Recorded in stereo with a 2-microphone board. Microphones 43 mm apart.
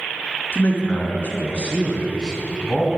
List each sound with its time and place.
0.5 s a man speaking: 45° left (ahead or behind), 2 m; by 3.0 s 5° left (ahead or behind), 1.6 m